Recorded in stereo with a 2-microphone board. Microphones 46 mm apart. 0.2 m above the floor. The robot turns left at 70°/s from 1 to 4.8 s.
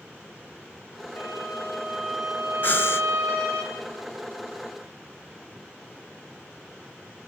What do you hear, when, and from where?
1.2 s a violin: 70° left, 8 m; by 3.6 s 100° right, 8 m
2.6 s breathing: 135° left, 0.8 m; by 3.1 s 105° left, 0.8 m